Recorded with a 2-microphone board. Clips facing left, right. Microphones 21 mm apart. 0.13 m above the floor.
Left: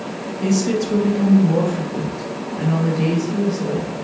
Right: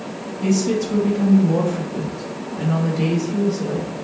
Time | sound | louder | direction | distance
0.4 | a woman speaking | even | 25° left (ahead or behind) | 1.3 m